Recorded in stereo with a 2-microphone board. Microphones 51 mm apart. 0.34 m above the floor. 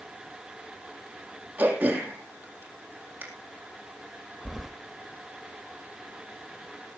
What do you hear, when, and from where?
1.6 s throat clearing: 30° right (ahead or behind), 4 m
4.5 s keys jangling: centre (ahead or behind), 0.8 m